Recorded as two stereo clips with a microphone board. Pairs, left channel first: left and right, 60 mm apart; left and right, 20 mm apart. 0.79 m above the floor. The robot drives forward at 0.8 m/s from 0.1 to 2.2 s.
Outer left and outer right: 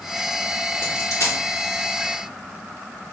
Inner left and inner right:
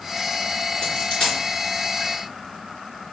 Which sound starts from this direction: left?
A dropped coin, at 0.8 s.